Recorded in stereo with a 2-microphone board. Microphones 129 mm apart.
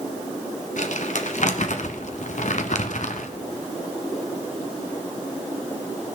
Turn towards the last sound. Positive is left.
turn(degrees=60)  # may be behind; listen again after turning